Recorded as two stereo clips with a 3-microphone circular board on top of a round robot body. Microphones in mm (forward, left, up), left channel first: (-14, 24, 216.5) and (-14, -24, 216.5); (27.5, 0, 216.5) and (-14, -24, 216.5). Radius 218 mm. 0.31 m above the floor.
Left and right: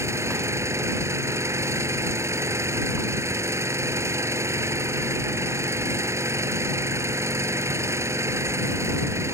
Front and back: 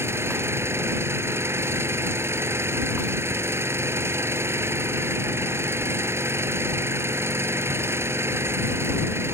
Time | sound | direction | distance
0.0 | an engine running | 115° right | ?